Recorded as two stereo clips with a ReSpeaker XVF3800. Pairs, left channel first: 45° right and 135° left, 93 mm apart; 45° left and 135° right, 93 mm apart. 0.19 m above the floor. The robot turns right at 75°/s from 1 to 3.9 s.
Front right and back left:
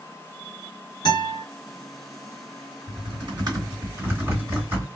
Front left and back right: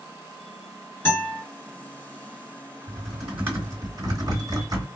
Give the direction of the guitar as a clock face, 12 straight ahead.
12 o'clock.